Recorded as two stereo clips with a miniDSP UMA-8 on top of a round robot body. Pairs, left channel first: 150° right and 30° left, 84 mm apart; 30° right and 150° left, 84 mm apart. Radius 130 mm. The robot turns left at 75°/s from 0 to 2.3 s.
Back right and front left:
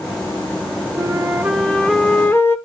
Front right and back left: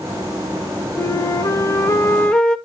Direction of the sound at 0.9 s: 5° right.